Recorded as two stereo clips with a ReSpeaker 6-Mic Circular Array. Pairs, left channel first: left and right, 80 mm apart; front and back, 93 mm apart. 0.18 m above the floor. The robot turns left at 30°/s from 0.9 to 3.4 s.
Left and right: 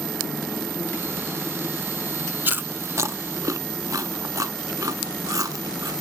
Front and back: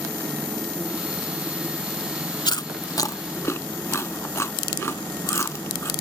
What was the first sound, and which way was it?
Chewing, 25° right.